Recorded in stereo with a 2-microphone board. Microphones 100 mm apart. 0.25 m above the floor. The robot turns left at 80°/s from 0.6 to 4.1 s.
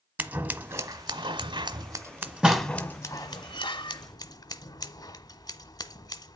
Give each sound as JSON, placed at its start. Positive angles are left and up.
{"t": 0.2, "sound": "scissors", "side_deg": -15, "distance_m": 0.9}